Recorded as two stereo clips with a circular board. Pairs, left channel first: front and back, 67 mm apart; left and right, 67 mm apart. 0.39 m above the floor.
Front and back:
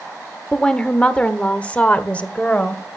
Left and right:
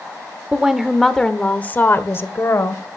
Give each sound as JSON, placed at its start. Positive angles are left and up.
{"t": 0.5, "sound": "a woman speaking", "azimuth_deg": -50, "distance_m": 1.0}